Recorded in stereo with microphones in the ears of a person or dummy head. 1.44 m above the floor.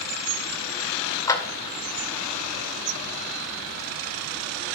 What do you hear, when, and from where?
1.3 s a clap: 20° left (ahead or behind), 2.0 m